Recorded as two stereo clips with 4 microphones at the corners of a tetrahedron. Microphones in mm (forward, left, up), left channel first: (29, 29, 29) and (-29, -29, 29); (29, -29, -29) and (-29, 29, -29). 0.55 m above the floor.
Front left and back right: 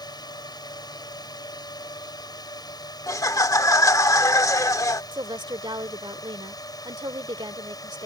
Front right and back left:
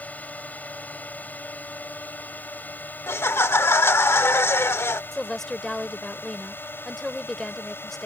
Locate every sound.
0.0 s a drone: 25° left; by 8.1 s 15° left
3.1 s laughter: 5° left
5.1 s a woman speaking: 130° right